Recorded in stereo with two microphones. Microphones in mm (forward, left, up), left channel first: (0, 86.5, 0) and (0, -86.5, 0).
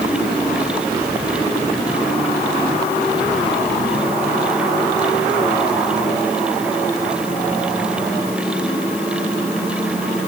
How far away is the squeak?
I don't hear a squeak.